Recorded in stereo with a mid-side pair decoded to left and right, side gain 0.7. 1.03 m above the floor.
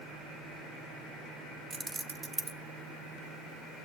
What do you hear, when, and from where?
1.7 s keys jangling: 20° right, 0.5 m